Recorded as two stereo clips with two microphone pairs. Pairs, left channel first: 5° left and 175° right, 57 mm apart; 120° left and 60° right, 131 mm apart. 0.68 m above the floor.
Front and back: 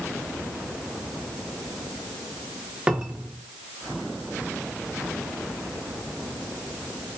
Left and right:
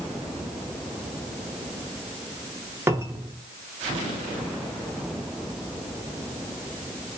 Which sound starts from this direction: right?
A cupboard door, at 2.9 s.